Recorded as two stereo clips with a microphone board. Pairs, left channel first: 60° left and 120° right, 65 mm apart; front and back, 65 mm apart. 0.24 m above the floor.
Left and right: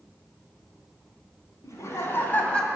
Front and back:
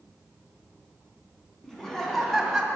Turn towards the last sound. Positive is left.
turn(degrees=115)